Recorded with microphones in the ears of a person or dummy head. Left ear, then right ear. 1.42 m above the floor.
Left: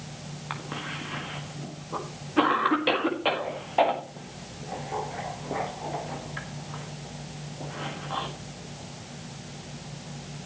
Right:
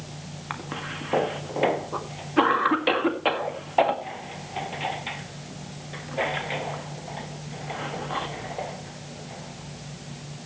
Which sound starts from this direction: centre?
A cough, at 0.5 s.